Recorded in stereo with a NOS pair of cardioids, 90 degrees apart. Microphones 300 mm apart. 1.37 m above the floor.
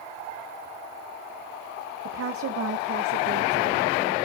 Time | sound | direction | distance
2.0 | a woman speaking | 45° right | 1.2 m